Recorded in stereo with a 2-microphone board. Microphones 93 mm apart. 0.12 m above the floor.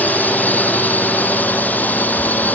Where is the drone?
15° left (ahead or behind).